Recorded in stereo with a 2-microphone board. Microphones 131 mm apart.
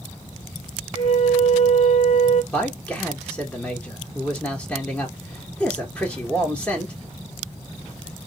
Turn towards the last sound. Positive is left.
turn(degrees=10)  # may be behind; listen again after turning